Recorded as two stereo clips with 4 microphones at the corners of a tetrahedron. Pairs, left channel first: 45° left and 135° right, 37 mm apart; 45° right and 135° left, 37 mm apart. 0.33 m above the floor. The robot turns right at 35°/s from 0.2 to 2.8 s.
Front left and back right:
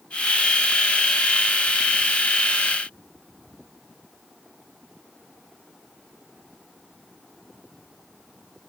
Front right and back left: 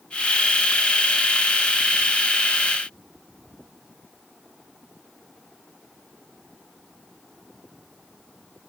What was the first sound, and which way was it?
Only background noise.